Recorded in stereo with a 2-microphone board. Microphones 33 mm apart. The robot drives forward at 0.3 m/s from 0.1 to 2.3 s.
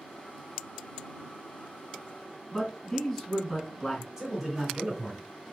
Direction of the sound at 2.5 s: 25° left (ahead or behind).